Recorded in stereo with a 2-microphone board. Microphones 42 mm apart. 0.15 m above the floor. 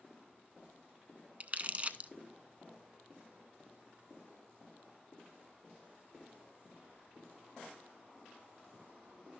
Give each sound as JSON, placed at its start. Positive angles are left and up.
{"t": 1.4, "sound": "crumpling", "side_deg": -35, "distance_m": 0.5}